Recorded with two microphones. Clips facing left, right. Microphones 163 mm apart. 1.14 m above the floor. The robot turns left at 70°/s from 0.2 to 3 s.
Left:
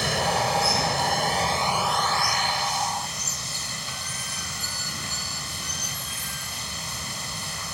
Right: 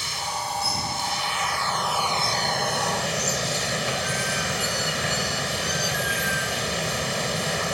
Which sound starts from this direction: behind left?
Running water, at 0.0 s.